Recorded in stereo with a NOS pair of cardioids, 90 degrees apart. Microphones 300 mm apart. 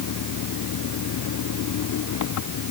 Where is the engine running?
65° left.